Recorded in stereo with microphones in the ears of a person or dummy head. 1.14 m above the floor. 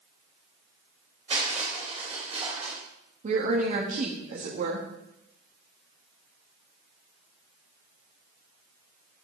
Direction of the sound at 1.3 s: 35° right (ahead or behind).